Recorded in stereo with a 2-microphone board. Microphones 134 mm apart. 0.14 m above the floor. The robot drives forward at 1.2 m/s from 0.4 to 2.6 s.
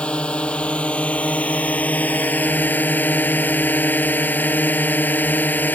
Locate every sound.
0.0 s a drone: 5° left (ahead or behind); by 5.8 s 10° left (ahead or behind)